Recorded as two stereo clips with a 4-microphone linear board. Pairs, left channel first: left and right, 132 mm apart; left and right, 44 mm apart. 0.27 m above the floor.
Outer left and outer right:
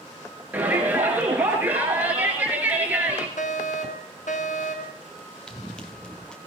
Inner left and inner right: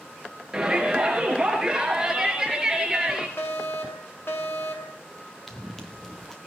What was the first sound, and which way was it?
A shout, 15° right (ahead or behind).